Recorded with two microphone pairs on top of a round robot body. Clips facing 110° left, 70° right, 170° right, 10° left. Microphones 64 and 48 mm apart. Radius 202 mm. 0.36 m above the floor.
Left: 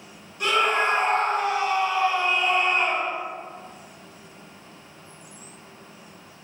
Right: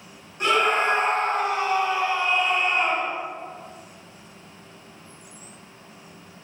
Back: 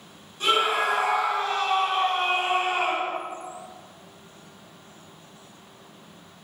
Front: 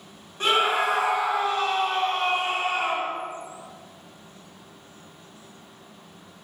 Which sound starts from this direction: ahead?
A scream, at 0.4 s.